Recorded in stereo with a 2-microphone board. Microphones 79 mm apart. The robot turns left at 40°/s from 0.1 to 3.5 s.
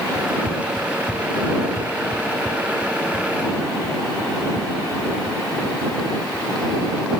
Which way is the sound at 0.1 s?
5° left (ahead or behind).